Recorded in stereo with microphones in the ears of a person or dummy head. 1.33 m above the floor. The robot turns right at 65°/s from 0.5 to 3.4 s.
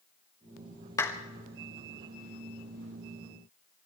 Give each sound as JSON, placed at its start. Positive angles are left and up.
{"t": 1.0, "sound": "a clap", "side_deg": 15, "distance_m": 1.7}